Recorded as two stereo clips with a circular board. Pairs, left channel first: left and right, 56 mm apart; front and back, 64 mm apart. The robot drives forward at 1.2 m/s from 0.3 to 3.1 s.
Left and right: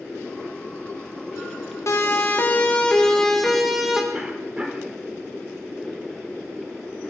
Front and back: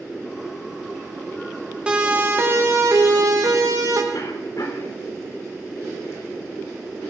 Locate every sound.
1.9 s a siren: 110° left, 2.5 m; by 4.0 s 170° right, 4 m
4.1 s a cough: 20° right, 3 m